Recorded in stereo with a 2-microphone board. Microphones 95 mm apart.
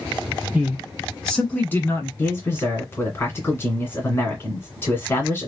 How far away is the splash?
No splash in this recording.